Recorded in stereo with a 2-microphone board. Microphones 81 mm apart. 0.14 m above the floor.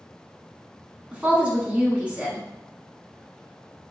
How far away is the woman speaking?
About 1.2 m.